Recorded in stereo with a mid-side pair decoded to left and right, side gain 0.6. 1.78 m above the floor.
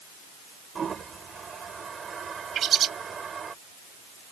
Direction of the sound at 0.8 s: 30° right.